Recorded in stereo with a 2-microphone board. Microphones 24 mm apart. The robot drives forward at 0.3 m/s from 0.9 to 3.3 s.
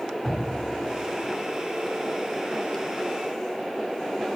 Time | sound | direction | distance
0.2 | dripping | 20° left (ahead or behind) | 2 m